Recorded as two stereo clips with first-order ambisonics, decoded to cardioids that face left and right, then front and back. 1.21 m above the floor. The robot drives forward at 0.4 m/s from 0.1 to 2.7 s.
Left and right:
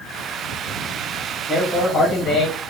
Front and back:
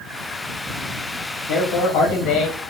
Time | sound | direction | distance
1.5 | a man speaking | 20° left | 1.1 m